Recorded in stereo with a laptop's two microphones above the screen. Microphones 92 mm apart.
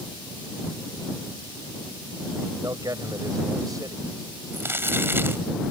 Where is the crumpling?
25° right (ahead or behind).